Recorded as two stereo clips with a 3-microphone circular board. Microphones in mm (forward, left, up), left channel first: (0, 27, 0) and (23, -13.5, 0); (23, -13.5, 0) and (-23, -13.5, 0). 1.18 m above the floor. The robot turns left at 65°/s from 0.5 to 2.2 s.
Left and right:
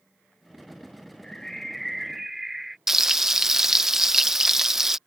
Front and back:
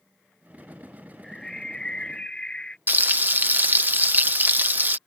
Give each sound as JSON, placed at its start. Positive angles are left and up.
{"t": 1.2, "sound": "a bird", "azimuth_deg": 70}
{"t": 2.9, "sound": "frying", "azimuth_deg": -140}